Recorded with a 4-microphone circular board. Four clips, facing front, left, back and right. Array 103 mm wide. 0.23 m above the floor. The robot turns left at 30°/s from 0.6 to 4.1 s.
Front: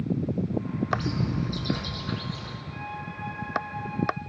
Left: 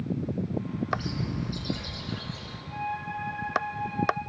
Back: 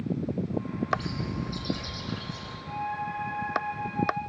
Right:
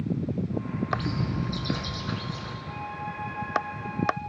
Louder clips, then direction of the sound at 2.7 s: Left 4 dB, back 8 dB; 170° right.